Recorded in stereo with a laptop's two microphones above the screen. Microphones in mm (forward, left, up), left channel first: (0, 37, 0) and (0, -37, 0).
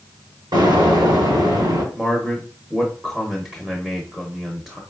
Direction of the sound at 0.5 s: 70° right (ahead or behind).